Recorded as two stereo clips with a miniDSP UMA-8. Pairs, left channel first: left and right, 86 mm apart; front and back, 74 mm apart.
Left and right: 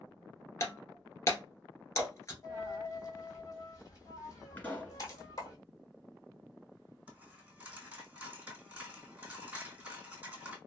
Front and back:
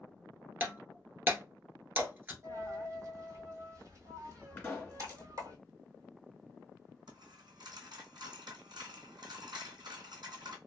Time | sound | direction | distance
0.6 | breaking glass | 130° left | 1.2 m
2.4 | a dropped coin | 140° left | 1.4 m
4.6 | a pop | 45° left | 2.0 m
7.1 | a dropped coin | 165° right | 1.5 m